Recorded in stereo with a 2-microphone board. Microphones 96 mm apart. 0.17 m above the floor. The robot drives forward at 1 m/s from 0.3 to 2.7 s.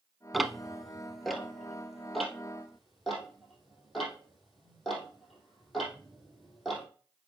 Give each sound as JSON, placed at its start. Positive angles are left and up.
{"t": 0.3, "sound": "ticking", "side_deg": 0, "distance_m": 0.5}